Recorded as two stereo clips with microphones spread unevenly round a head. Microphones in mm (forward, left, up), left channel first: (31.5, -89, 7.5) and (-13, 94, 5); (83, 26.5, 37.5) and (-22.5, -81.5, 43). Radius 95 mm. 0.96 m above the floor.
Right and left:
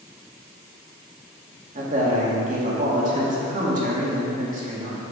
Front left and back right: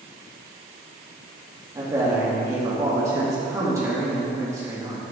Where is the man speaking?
155° left, 2 m.